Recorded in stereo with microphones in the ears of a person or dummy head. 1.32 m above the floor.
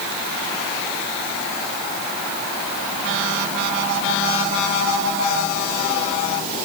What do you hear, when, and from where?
Only background noise.